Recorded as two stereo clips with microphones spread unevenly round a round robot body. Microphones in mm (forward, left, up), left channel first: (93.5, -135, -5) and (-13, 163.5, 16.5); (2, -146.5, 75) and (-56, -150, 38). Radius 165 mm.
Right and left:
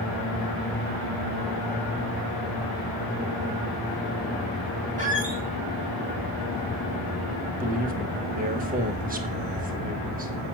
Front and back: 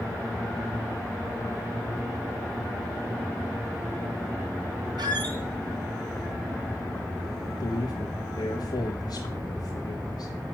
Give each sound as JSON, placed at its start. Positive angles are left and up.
{"t": 5.0, "sound": "a squeak", "azimuth_deg": 175, "distance_m": 1.1}
{"t": 7.6, "sound": "a man speaking", "azimuth_deg": 45, "distance_m": 1.4}